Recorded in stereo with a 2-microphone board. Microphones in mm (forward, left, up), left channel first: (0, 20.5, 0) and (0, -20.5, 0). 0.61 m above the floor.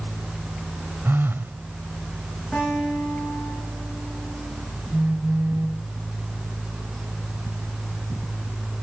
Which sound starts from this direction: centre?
A guitar, at 2.5 s.